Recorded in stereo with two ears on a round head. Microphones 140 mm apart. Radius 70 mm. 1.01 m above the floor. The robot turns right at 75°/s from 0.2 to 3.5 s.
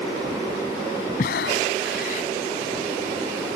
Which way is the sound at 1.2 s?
55° left.